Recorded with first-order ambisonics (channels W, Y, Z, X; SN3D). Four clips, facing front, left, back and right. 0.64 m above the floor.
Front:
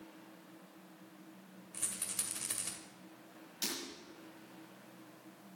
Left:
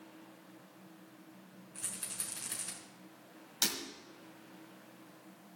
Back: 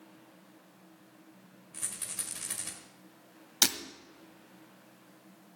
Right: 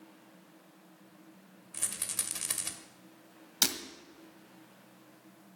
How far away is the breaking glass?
About 1.3 m.